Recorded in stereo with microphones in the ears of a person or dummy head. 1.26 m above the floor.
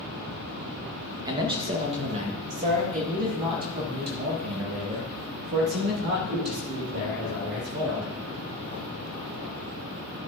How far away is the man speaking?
About 1.0 m.